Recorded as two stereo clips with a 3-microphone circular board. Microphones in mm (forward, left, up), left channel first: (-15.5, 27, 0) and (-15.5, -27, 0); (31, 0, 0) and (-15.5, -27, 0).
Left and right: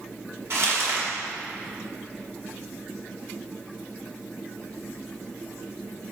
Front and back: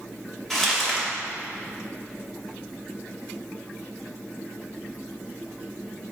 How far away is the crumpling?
About 3.5 m.